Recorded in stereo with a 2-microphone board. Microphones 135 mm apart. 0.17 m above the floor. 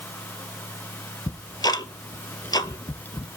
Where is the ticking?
30° left (ahead or behind), 0.6 m.